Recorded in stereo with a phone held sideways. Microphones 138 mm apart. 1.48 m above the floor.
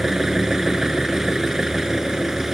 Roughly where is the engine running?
Centre.